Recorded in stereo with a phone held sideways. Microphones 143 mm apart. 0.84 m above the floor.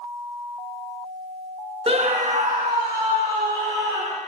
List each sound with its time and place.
1.9 s a scream: 40° right (ahead or behind), 0.8 m; by 4.2 s 80° right, 3 m